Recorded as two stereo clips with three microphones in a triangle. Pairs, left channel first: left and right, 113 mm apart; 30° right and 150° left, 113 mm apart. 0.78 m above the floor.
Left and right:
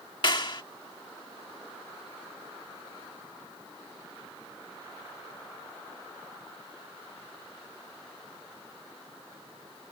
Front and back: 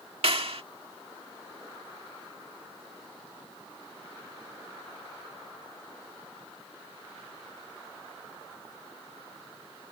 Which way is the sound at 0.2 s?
130° left.